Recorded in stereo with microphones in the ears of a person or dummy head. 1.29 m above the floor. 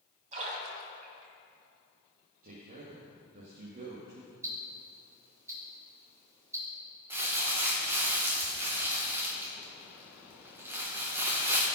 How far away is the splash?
About 2.5 m.